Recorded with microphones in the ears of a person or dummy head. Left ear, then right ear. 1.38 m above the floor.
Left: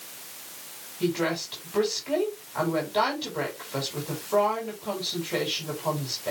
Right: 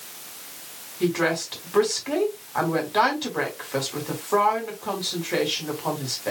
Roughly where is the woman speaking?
Right.